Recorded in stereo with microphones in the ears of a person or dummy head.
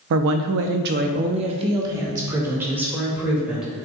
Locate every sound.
0.1 s a woman speaking: 60° right (ahead or behind), 0.7 m; by 3.7 s 5° right (ahead or behind), 2.5 m